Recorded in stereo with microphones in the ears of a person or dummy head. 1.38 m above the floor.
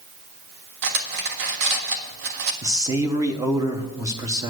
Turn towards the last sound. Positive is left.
turn(degrees=-10)  # may be behind; listen again after turning